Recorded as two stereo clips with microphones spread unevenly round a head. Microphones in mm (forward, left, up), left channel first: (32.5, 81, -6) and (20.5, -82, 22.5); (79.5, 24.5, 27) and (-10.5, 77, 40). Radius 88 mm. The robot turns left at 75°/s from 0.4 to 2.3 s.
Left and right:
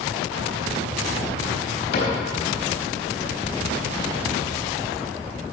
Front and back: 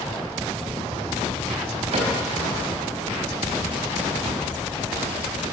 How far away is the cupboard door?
About 4 m.